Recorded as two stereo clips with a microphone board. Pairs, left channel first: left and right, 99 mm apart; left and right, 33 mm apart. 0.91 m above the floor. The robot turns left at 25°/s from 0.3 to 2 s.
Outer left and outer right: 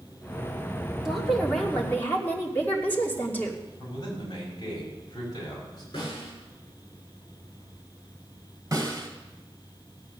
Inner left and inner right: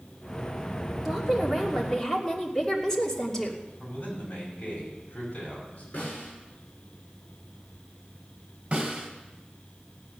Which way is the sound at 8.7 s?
35° right (ahead or behind).